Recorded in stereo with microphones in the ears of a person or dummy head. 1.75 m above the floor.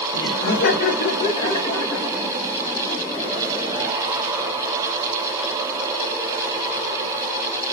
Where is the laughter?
65° left (ahead or behind), 1.1 m; by 3.9 s 5° right (ahead or behind), 2.5 m.